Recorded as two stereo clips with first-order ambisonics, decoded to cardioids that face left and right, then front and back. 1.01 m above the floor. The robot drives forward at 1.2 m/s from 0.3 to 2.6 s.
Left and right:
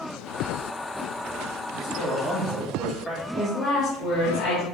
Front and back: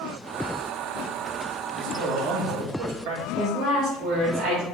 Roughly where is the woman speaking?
Behind left.